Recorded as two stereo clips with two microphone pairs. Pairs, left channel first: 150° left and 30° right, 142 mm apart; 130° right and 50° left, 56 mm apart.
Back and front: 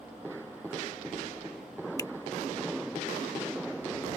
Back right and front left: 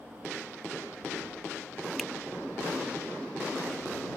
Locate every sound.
2.0 s a finger snap: 150° left